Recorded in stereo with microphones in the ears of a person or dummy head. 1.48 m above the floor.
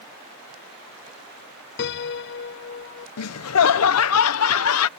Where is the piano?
65° left (ahead or behind).